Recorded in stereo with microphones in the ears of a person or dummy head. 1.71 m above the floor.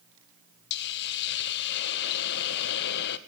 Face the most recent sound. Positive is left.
turn(degrees=55)  # may be behind; listen again after turning